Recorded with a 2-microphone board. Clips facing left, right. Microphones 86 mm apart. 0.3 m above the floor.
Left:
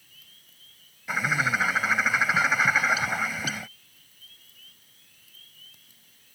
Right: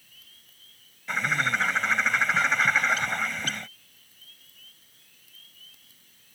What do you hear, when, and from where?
1.1 s a bird: 5° left (ahead or behind)